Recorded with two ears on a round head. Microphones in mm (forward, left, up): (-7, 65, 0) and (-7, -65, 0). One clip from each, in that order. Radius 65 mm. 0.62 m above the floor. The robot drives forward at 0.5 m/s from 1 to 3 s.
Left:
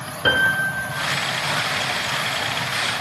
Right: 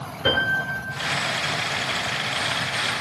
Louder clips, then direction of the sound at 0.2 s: Left 3 dB; 40° left (ahead or behind).